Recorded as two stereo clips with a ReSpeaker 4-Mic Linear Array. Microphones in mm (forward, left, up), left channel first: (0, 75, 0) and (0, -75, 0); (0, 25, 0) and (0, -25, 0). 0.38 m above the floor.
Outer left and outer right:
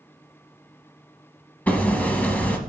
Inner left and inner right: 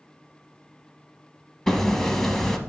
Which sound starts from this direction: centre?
Hammering, at 1.7 s.